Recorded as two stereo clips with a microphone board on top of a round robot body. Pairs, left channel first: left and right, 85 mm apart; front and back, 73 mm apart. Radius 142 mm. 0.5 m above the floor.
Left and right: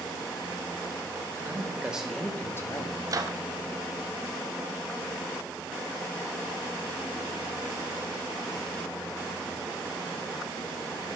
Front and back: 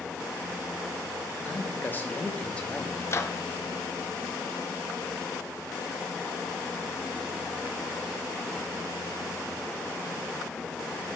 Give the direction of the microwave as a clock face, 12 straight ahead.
2 o'clock.